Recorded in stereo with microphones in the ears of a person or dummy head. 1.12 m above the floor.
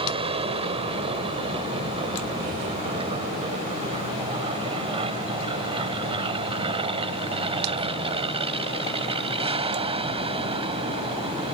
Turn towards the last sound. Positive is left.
turn(degrees=-35)  # may be behind; listen again after turning